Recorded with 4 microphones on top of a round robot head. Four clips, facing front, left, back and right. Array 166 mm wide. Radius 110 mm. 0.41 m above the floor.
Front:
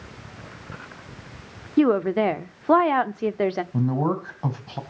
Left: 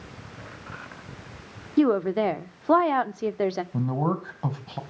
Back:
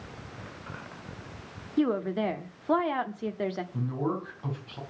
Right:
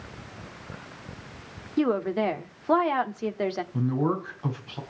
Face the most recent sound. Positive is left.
turn(degrees=40)